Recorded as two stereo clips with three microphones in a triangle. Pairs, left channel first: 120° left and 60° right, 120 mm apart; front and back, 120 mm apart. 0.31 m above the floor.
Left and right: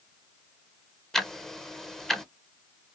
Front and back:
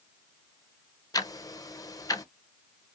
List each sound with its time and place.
1.1 s ticking: 35° left, 0.5 m